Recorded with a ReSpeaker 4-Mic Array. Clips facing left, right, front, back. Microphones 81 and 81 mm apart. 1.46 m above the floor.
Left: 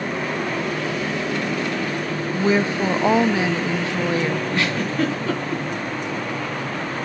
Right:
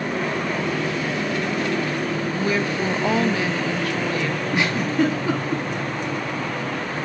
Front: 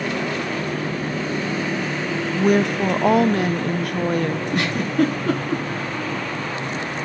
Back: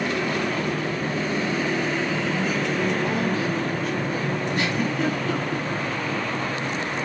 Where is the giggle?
15° right, 3.5 m.